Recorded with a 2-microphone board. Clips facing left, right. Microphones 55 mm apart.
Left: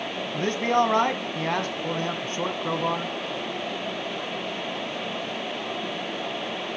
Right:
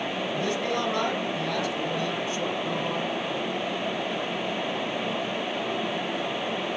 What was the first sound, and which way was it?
A man speaking, 45° left (ahead or behind).